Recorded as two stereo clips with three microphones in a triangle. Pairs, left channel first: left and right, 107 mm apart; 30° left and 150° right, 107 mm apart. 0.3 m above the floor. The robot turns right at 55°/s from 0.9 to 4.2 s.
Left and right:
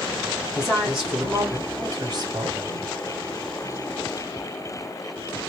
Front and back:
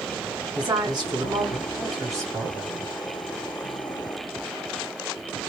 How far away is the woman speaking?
About 2.0 m.